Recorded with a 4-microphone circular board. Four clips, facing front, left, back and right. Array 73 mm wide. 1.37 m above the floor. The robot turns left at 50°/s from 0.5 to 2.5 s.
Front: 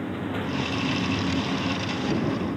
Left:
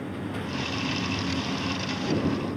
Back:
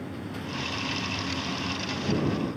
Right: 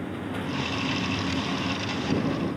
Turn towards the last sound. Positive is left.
No sound to turn to.